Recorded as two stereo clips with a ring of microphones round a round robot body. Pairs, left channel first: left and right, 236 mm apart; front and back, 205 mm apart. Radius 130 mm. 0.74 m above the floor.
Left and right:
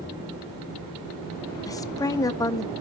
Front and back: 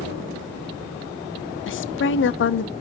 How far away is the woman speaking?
About 0.9 m.